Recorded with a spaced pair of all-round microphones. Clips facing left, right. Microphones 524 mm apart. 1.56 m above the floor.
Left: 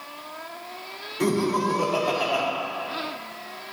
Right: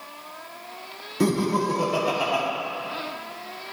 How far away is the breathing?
I don't hear breathing.